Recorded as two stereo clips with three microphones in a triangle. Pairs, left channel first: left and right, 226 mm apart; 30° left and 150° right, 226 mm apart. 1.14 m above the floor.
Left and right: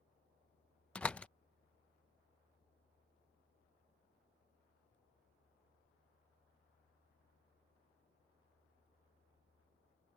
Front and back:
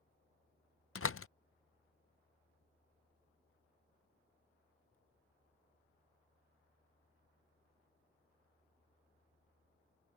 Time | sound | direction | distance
0.9 | a door slam | 5° left | ?